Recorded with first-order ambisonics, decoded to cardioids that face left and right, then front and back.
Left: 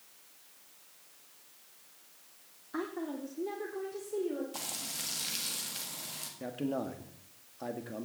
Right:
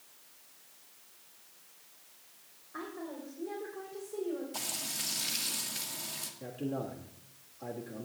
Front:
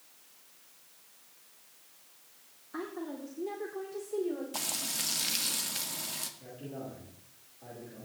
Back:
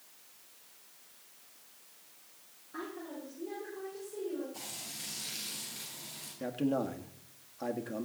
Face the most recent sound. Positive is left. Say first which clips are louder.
# left 3 dB, back 10 dB
turn(degrees=145)